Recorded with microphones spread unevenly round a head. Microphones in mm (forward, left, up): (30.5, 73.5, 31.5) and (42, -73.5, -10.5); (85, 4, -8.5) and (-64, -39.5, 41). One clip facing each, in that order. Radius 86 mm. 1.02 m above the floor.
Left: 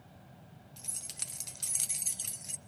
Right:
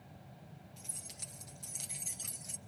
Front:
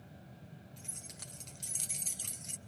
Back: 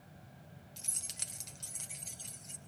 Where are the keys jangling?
150° left, 1.3 m; by 2.6 s 25° left, 1.3 m.